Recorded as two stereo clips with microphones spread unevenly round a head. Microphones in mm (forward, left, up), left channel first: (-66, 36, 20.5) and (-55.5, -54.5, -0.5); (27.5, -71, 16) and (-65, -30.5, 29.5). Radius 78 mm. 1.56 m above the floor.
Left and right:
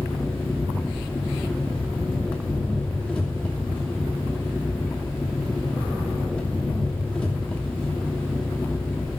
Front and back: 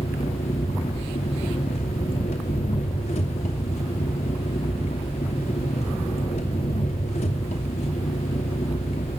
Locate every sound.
0.0 s an engine running: 15° left, 2.5 m